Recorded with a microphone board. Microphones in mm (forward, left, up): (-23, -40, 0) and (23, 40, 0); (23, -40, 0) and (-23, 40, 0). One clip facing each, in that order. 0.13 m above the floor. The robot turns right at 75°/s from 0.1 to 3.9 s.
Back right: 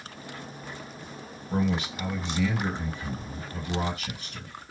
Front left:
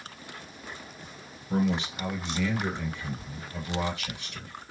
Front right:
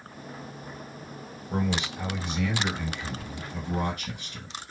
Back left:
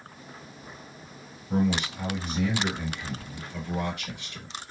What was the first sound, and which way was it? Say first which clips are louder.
A man speaking: even, back left 3 dB; 95° left.